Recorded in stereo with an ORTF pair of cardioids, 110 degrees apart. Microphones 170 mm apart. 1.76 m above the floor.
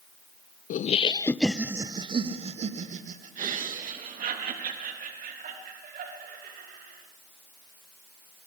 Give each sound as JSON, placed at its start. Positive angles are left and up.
{"t": 0.7, "sound": "laughter", "azimuth_deg": 50, "distance_m": 1.1}